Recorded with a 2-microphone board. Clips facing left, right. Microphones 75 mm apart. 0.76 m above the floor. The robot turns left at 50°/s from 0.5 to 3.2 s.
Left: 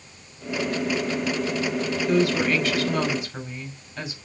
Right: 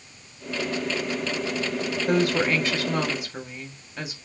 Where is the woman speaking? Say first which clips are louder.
Left 1 dB; 115° right, 2.5 m; by 4.2 s 170° right, 2.5 m.